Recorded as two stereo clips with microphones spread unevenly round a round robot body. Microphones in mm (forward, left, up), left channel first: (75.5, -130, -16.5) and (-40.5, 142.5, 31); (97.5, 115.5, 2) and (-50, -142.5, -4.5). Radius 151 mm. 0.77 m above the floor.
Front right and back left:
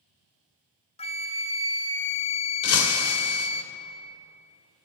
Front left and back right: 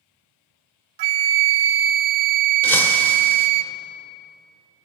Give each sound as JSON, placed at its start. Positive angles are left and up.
{"t": 1.0, "sound": "a flute", "azimuth_deg": -135, "distance_m": 0.5}
{"t": 2.6, "sound": "breaking glass", "azimuth_deg": -25, "distance_m": 1.1}